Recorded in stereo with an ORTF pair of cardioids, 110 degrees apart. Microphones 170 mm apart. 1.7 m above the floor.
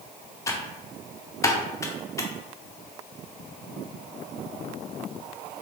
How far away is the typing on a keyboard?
About 0.8 m.